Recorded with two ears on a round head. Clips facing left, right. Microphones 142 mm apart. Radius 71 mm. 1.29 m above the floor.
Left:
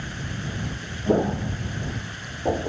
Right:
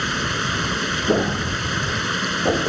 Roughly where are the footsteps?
Centre.